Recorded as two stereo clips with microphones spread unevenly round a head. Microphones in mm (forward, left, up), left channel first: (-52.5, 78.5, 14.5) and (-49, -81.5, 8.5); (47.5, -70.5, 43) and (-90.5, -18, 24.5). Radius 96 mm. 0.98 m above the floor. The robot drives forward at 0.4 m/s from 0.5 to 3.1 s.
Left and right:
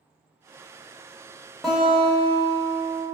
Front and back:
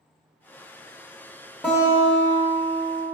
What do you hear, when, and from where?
1.6 s a guitar: 15° left, 0.7 m; by 3.0 s 170° left, 0.7 m